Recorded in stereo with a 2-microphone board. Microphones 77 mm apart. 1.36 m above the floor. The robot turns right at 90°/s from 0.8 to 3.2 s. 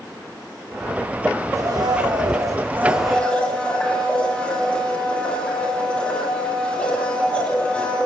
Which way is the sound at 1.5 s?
135° right.